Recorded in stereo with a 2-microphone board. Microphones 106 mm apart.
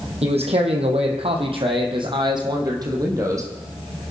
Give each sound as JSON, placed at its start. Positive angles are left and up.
{"t": 0.2, "sound": "a man speaking", "side_deg": -70, "distance_m": 3.5}